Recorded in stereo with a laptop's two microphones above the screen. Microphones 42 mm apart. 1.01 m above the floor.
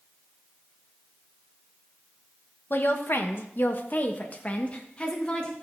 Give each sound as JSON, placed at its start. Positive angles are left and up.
{"t": 2.7, "sound": "a woman speaking", "side_deg": 55, "distance_m": 1.2}